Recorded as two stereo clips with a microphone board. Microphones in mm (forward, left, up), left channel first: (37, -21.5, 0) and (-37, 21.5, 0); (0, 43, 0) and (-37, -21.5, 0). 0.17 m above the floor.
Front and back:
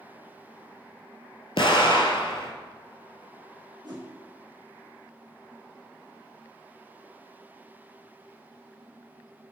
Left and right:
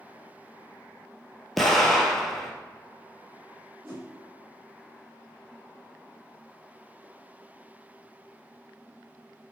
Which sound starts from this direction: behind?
A whoosh, at 3.8 s.